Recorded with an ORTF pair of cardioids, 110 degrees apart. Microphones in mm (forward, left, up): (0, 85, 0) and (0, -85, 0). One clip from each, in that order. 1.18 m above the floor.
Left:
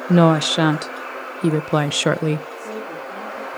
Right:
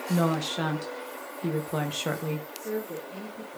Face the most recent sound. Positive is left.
turn(degrees=40)